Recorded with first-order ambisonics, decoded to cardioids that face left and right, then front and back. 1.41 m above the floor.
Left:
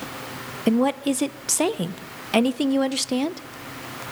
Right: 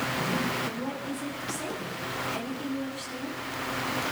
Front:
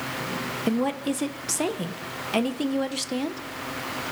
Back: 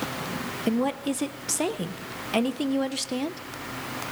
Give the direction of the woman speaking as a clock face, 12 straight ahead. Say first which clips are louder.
Left 11 dB, even; 9 o'clock.